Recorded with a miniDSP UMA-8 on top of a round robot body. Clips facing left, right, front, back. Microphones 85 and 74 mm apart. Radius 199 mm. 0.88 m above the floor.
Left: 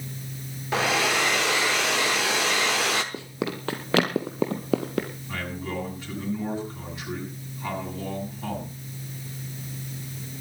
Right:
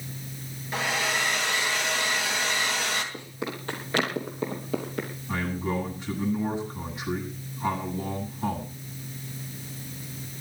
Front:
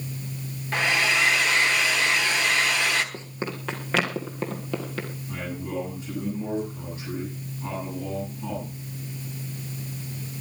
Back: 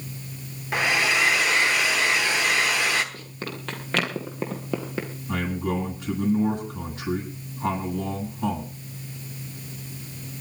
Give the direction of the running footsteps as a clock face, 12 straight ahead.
10 o'clock.